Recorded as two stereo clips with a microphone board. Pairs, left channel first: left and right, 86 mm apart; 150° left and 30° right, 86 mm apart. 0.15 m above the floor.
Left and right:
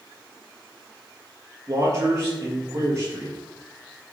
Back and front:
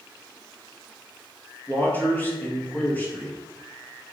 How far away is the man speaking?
About 3 m.